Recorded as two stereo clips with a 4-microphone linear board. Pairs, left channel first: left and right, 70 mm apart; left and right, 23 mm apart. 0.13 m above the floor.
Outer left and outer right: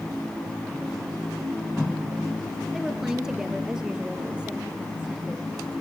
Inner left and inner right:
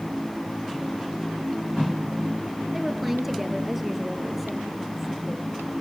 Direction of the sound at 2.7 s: 5° right (ahead or behind).